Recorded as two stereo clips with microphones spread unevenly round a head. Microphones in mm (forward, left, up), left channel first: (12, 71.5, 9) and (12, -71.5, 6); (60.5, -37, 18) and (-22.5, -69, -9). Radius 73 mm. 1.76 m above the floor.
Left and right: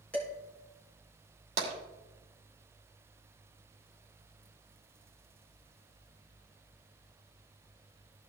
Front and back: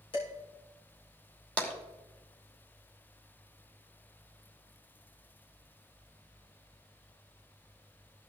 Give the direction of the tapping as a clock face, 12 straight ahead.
2 o'clock.